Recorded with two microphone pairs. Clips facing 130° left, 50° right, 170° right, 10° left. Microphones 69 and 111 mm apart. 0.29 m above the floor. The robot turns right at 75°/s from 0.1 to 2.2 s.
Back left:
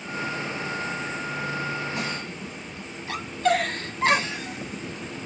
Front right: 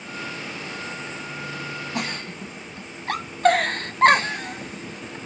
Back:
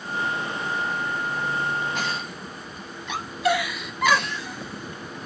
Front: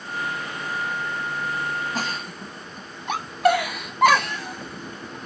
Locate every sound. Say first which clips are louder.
1.9 s a giggle: front right 1 dB, even; 40° right, 0.7 m; by 5.2 s 20° right, 0.7 m